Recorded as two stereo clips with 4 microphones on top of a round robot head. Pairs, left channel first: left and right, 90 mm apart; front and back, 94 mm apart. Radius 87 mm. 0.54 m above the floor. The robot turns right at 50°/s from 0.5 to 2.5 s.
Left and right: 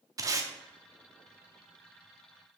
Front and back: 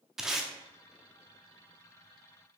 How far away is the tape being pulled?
About 0.9 m.